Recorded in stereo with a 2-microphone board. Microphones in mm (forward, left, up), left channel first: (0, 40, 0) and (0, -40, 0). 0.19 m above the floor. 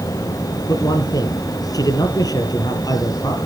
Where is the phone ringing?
No phone ringing in this recording.